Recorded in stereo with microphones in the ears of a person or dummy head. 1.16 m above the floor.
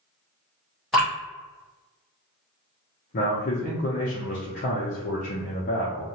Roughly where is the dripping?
Centre.